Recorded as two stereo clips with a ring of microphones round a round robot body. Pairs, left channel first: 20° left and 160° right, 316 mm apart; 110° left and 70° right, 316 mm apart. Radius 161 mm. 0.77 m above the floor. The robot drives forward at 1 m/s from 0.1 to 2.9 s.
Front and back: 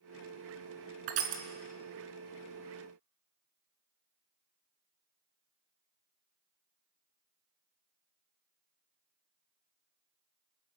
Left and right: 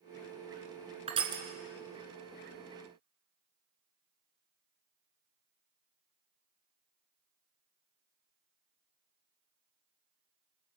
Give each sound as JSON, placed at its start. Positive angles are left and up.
{"t": 1.1, "sound": "crushing", "azimuth_deg": -140, "distance_m": 2.0}